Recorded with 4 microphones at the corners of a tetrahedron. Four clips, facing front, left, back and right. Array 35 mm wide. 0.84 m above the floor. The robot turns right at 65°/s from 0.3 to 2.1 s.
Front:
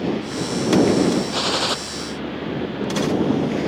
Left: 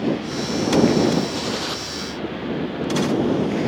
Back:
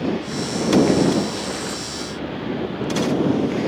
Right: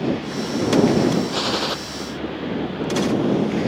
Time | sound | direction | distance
1.3 | a gunshot | 45° right | ?